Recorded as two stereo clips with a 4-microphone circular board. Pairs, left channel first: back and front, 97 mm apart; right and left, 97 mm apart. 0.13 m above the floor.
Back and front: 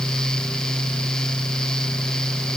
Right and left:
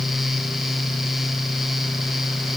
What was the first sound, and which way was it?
Only background noise.